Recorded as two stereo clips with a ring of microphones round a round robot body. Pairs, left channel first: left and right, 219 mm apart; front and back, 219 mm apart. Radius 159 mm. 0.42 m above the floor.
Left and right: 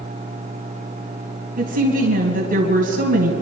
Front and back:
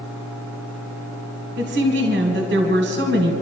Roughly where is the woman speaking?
Behind right.